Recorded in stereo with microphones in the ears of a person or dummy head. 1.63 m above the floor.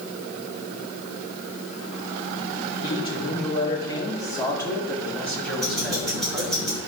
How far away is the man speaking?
About 4.5 m.